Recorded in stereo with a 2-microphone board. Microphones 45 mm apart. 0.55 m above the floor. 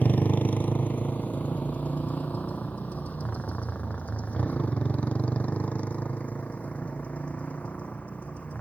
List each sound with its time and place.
0.0 s a motorcycle: 35° left (ahead or behind); by 8.6 s 30° left (ahead or behind)